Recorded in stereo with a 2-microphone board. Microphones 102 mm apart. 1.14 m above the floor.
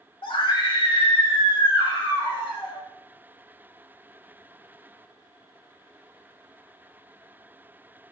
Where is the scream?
55° left (ahead or behind), 1.9 m.